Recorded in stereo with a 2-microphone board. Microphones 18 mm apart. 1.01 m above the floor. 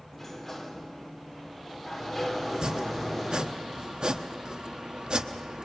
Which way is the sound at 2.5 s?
55° right (ahead or behind).